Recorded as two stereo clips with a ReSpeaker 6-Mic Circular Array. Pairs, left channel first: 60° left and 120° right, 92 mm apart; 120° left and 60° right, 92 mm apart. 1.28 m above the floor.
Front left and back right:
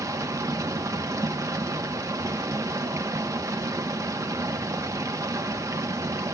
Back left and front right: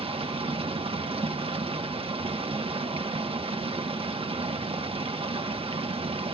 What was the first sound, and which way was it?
Running water, 65° right.